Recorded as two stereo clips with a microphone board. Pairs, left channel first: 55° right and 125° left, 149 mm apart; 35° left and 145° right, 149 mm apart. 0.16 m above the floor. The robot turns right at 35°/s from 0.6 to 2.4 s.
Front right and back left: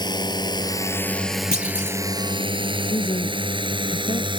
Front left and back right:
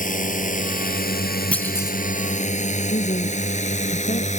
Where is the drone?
5° left; by 4.4 s 70° left.